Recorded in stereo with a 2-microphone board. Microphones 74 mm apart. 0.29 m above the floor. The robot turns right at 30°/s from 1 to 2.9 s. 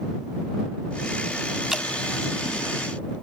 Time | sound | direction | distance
1.7 | dripping | 10° right (ahead or behind) | ?